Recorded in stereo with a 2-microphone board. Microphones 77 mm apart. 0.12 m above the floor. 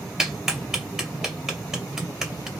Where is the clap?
5° right (ahead or behind), 2 m.